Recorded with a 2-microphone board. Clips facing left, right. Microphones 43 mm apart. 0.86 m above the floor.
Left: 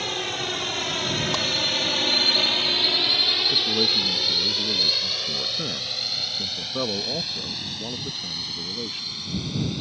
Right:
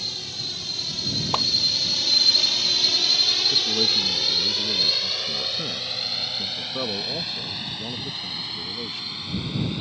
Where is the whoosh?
25° right (ahead or behind).